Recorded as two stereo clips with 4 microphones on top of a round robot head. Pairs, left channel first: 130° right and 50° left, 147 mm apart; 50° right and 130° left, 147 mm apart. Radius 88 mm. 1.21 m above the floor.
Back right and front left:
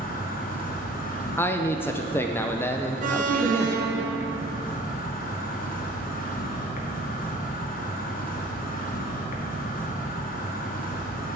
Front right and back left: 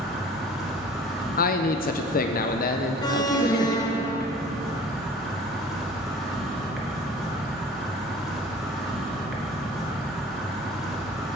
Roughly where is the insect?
Behind right.